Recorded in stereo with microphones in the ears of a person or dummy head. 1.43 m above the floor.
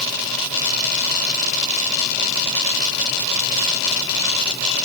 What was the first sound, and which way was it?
Only background noise.